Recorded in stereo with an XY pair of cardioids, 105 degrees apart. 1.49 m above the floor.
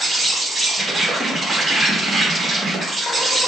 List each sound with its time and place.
0.0 s an insect: 25° right, 1.4 m